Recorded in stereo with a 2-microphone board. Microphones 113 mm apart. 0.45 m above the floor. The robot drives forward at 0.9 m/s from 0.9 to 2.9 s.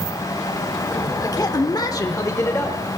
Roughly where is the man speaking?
Left.